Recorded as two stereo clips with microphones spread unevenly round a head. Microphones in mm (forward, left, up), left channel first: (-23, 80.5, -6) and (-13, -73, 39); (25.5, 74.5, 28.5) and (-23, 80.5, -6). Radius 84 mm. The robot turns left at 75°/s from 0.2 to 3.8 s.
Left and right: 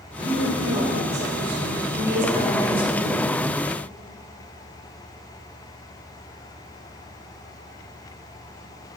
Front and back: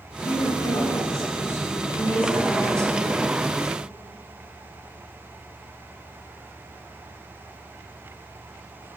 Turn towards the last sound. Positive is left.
turn(degrees=115)